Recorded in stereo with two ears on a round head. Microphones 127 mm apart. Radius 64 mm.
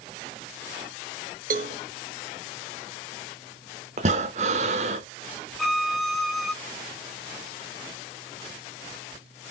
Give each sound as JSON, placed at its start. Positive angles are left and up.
{"t": 1.5, "sound": "a cowbell", "side_deg": -60, "distance_m": 0.6}
{"t": 4.0, "sound": "breathing", "side_deg": -50, "distance_m": 0.8}
{"t": 5.6, "sound": "a violin", "side_deg": 0, "distance_m": 0.8}